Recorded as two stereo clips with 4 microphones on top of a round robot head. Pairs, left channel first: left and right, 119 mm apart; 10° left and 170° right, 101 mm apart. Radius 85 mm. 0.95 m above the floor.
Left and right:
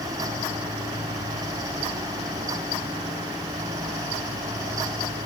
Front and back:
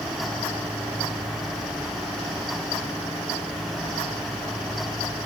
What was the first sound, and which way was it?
Only background noise.